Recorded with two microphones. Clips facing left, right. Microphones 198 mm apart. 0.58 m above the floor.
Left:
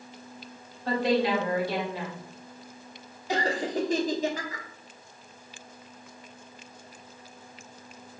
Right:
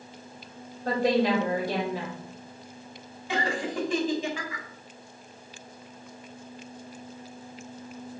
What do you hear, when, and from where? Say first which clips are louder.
0.8 s a woman speaking: right 1 dB; 45° right (ahead or behind), 2.0 m
3.3 s laughter: left 1 dB; 40° left (ahead or behind), 1.1 m